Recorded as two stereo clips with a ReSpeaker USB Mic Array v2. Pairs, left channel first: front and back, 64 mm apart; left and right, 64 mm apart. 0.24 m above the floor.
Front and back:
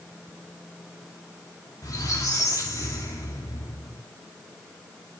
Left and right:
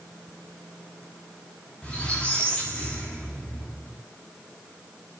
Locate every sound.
1.8 s a squeak: 15° left, 2.5 m